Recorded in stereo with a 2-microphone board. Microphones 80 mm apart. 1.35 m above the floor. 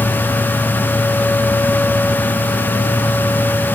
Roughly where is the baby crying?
No baby crying in this recording.